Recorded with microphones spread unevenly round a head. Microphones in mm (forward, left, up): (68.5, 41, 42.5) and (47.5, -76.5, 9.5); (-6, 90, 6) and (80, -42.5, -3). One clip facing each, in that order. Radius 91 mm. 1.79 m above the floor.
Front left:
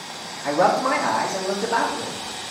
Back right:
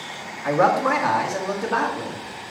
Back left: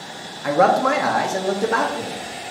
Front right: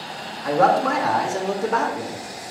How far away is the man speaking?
About 1.2 m.